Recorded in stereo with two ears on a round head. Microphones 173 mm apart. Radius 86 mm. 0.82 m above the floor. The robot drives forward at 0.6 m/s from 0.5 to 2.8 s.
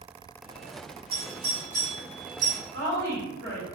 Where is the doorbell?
30° right (ahead or behind), 1.8 m; by 2.6 s 40° right (ahead or behind), 1.4 m.